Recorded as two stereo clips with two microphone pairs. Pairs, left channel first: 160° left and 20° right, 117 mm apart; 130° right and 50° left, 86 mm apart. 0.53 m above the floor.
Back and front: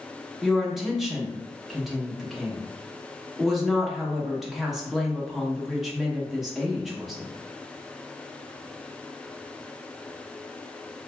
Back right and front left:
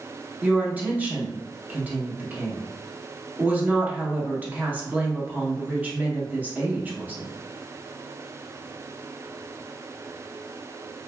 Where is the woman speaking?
65° left, 0.6 m.